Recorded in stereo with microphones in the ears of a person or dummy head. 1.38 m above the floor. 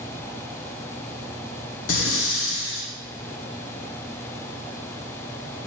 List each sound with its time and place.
1.9 s breathing: 60° left (ahead or behind), 1.1 m